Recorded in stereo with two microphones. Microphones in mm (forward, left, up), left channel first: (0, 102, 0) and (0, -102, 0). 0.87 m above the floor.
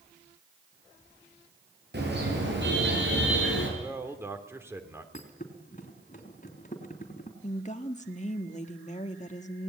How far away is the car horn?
About 8.5 m.